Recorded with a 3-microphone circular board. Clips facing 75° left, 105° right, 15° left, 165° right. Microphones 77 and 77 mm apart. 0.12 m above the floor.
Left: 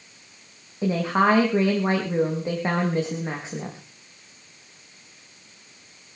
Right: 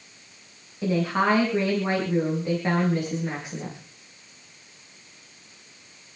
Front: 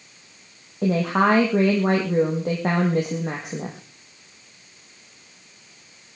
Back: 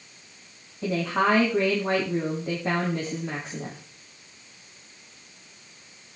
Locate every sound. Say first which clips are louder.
0.8 s a woman speaking: left 2 dB, front 4 dB; 10° left, 5 m